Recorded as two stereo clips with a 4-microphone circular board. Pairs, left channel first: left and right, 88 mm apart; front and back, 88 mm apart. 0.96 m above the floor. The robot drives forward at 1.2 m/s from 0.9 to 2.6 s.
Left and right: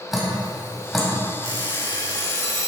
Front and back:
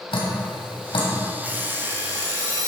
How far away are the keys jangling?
No keys jangling in this recording.